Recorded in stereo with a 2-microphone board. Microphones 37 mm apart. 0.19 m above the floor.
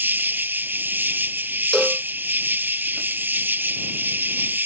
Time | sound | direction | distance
0.0 | an insect | 70° right (ahead or behind) | ?
1.7 | a cowbell | 5° left (ahead or behind) | ?